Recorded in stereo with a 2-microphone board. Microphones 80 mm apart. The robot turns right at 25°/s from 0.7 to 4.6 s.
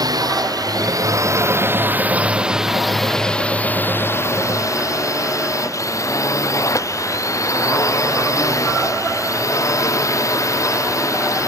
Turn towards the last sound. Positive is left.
turn(degrees=45)